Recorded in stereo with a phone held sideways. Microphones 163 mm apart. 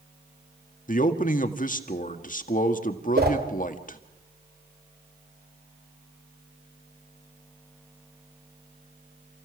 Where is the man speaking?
55° left (ahead or behind), 1.7 m.